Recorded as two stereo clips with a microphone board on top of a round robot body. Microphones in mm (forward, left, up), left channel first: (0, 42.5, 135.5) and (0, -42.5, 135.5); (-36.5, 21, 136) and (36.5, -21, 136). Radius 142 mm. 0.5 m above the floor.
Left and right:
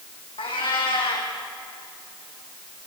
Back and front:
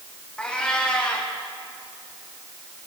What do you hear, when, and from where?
0.4 s a cat meowing: 75° left, 3.5 m